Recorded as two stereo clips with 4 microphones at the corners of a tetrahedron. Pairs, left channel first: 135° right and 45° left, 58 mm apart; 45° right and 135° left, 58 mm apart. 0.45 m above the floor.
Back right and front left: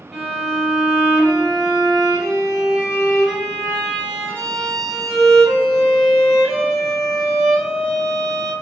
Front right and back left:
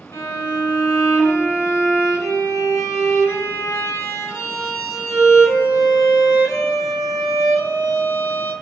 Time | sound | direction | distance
0.1 | a violin | 45° right | 1.3 m